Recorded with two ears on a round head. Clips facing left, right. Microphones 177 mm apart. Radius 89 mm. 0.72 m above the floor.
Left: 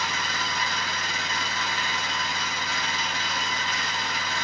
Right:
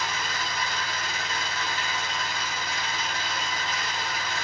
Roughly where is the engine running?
Left.